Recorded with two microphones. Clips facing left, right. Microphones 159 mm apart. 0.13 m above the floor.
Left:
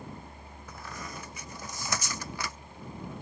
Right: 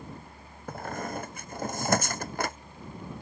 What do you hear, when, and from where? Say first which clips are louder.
0.7 s a squeak: right 9 dB; 50° right (ahead or behind)